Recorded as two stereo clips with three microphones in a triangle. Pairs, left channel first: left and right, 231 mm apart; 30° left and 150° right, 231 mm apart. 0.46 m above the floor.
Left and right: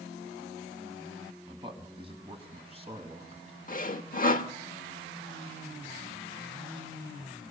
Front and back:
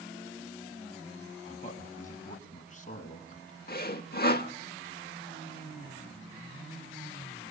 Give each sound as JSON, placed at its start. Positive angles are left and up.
{"t": 1.5, "sound": "a man speaking", "azimuth_deg": -25, "distance_m": 3.5}
{"t": 3.7, "sound": "sawing", "azimuth_deg": 55, "distance_m": 1.1}